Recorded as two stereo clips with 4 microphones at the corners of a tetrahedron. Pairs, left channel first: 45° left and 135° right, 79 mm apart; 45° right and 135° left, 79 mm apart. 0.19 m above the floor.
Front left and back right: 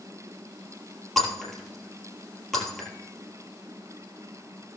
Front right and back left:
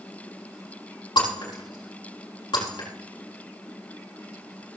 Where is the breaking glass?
40° right, 3.5 m.